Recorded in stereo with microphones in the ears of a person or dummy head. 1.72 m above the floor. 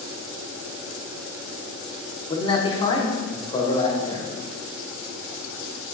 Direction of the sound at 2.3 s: 25° left (ahead or behind).